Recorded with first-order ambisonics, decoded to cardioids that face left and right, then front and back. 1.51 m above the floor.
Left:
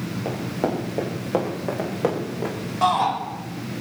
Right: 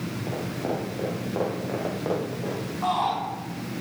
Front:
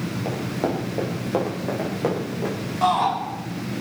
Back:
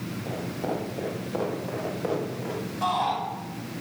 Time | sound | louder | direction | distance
0.2 | running footsteps | left 4 dB, front 5 dB | 55° left | 7.5 m
2.8 | a shout | left 5 dB, front 6 dB | 60° left | 7 m